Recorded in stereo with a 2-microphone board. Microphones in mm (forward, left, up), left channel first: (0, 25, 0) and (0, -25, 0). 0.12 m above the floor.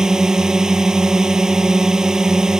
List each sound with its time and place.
0.0 s a drone: 15° right (ahead or behind)